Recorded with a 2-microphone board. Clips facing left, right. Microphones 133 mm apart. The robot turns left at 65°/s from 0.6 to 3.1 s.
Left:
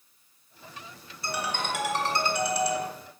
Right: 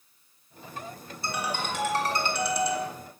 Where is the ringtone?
150° right, 1.9 m; by 2.9 s 100° left, 1.9 m.